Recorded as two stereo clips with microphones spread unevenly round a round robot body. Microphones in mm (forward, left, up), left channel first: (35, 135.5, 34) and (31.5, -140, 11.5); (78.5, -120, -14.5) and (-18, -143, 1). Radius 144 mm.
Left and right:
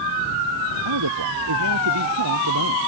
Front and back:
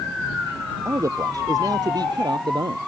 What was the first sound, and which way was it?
A man speaking, 110° right.